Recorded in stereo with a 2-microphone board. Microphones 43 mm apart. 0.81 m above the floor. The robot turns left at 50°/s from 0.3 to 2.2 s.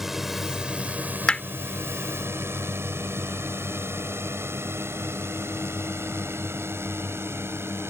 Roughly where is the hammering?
Left.